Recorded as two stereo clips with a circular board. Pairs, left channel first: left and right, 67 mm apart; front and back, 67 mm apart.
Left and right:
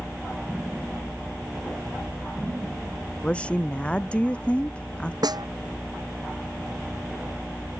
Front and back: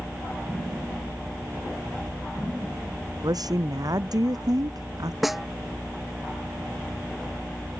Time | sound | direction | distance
3.2 | a woman speaking | 160° left | ?
5.2 | a snare drum | 95° right | ?